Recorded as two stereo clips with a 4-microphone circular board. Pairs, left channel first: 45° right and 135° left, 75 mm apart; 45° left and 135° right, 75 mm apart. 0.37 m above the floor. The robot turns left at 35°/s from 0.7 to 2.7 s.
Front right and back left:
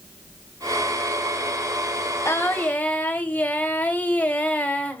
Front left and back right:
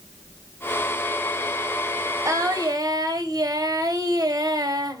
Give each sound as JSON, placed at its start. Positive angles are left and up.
{"t": 2.2, "sound": "singing", "azimuth_deg": -90, "distance_m": 1.1}